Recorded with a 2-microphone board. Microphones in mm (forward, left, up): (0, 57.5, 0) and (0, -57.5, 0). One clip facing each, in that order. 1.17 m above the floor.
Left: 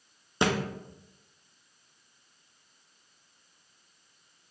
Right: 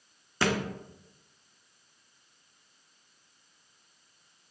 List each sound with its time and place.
0.4 s a thud: 20° left (ahead or behind), 0.6 m